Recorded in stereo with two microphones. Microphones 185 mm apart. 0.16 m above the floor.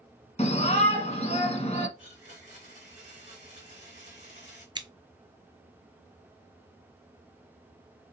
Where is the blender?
40° right (ahead or behind), 2.5 m.